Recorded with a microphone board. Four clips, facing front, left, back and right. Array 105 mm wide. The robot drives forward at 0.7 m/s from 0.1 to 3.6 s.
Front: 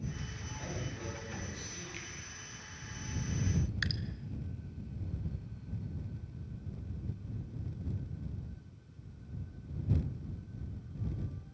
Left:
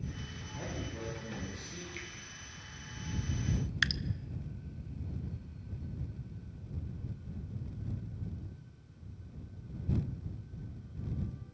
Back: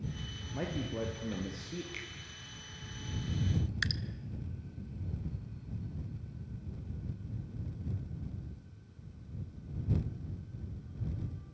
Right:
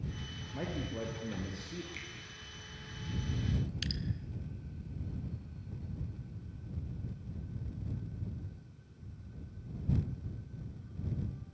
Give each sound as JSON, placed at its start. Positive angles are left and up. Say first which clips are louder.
{"t": 0.5, "sound": "a man speaking", "louder": "right 3 dB, back 7 dB", "azimuth_deg": -155, "distance_m": 4.0}
{"t": 1.9, "sound": "a finger snap", "louder": "left 3 dB, back 1 dB", "azimuth_deg": -170, "distance_m": 6.0}
{"t": 3.8, "sound": "dripping", "louder": "left 6 dB, back 1 dB", "azimuth_deg": 100, "distance_m": 0.6}